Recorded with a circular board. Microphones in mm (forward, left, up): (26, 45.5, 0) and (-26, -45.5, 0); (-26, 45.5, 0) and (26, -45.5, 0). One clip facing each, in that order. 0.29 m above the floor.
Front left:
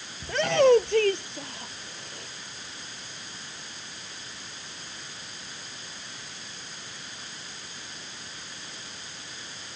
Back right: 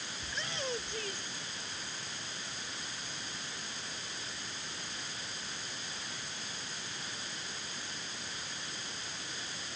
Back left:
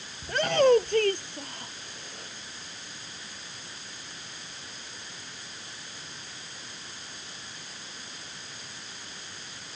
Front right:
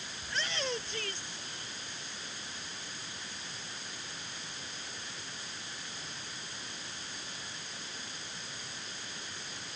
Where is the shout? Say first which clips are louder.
Front left 21 dB, back left 16 dB; 85° left.